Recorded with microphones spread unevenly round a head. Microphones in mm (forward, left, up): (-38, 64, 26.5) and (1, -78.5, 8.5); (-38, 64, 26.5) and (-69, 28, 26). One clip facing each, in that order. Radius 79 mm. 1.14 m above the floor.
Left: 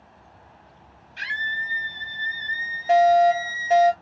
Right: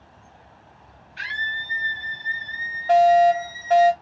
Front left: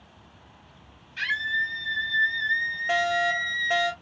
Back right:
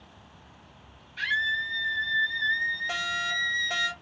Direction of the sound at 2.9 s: 40° left.